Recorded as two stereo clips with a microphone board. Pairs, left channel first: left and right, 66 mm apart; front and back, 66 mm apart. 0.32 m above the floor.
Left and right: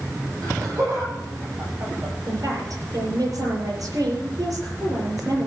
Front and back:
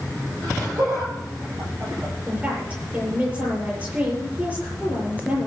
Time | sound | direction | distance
0.4 | laughter | 135° right | 10 m
2.3 | a woman speaking | 115° right | 7.5 m